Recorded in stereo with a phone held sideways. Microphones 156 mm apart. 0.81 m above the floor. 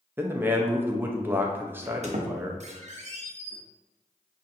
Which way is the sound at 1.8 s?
45° right (ahead or behind).